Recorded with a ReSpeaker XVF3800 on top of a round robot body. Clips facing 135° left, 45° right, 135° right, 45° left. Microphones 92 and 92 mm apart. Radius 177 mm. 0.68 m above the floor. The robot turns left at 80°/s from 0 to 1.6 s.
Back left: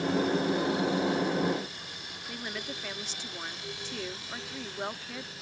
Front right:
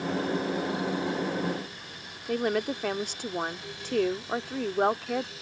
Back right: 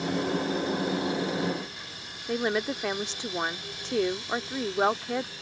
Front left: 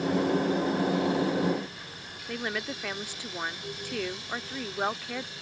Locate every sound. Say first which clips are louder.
2.3 s a woman speaking: front right 13 dB, back right 6 dB; 70° right